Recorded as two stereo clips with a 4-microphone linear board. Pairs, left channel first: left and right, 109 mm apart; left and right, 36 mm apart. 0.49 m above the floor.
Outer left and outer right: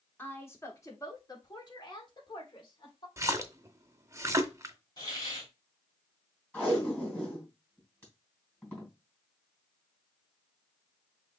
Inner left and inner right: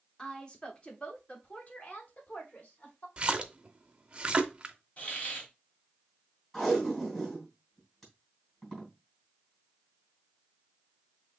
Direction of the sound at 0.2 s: 20° left (ahead or behind).